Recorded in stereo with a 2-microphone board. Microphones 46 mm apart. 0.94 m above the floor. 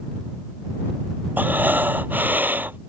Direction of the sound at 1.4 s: 40° right (ahead or behind).